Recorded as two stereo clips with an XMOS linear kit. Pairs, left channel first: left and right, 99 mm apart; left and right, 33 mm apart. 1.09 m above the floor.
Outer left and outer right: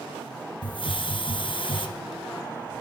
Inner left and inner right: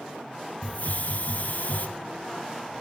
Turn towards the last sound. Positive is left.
turn(degrees=55)  # may be behind; listen again after turning